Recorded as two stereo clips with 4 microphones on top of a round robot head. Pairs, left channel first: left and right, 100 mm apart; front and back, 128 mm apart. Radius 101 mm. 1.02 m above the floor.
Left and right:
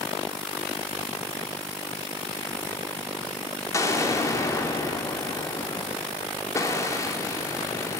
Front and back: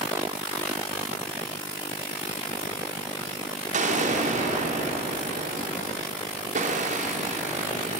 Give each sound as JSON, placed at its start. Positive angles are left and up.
{"t": 3.7, "sound": "an explosion", "azimuth_deg": 150, "distance_m": 2.5}